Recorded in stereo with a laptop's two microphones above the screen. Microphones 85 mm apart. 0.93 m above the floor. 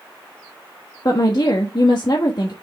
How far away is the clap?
I don't hear a clap.